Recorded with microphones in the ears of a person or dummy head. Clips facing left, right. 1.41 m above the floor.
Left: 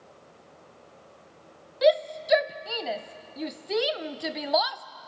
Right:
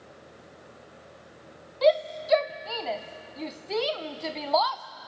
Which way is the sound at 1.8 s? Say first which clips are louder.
Left 1 dB; 15° left (ahead or behind).